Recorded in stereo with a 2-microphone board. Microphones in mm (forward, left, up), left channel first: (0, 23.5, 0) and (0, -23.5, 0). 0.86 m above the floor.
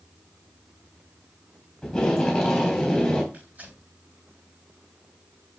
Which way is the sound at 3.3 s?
35° right (ahead or behind).